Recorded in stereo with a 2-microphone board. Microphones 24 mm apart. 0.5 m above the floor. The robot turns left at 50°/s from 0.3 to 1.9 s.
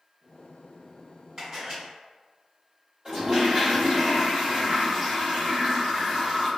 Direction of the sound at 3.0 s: 40° right (ahead or behind).